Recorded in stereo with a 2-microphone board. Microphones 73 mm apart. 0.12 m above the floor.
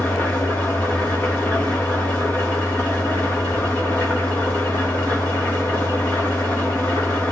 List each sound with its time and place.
0.0 s an engine running: 30° left (ahead or behind), 3 m